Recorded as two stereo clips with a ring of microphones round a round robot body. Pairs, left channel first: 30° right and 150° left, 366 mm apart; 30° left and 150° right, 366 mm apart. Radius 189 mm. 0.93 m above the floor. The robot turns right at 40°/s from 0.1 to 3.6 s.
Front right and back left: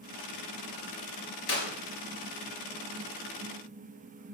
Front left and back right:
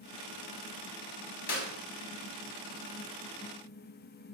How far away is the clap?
About 5.5 m.